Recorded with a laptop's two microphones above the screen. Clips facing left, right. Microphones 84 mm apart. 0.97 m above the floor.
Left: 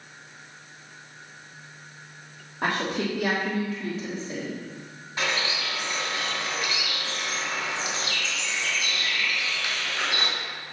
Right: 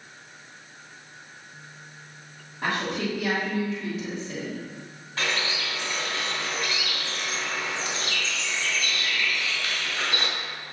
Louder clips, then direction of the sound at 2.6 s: Left 1 dB; 65° left (ahead or behind).